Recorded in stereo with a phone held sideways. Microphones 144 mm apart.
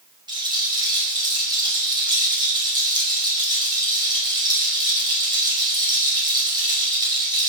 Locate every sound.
0.3 s a rattle: 30° right (ahead or behind), 5.5 m